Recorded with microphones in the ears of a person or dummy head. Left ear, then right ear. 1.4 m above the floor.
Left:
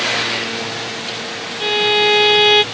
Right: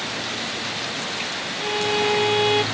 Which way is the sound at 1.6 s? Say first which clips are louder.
Left 8 dB; 40° left (ahead or behind).